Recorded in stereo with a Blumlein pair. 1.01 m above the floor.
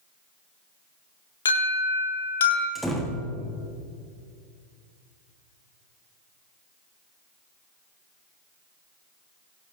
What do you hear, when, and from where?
1.4 s an alarm: 65° left, 3.5 m
2.8 s a door slam: straight ahead, 1.6 m